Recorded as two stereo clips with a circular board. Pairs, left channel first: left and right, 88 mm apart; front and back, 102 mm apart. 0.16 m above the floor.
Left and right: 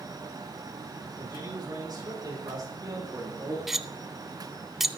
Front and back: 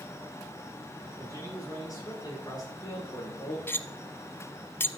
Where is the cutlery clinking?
10° right, 0.6 m.